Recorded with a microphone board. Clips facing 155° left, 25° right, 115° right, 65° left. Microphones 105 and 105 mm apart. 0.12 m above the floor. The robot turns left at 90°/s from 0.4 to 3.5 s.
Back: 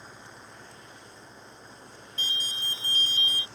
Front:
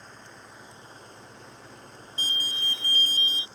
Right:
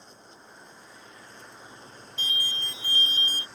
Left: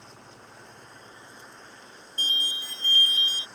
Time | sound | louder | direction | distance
0.0 | an engine running | even, left 2 dB | 75° left | ?
2.2 | an alarm | front 2 dB, right 1 dB | 25° left | ?